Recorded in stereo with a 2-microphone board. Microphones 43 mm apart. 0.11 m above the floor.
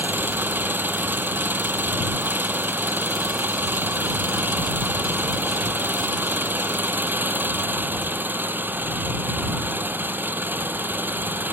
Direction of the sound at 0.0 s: 45° right (ahead or behind).